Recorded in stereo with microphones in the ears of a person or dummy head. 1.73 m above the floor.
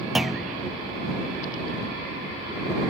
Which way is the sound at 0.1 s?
Centre (ahead or behind).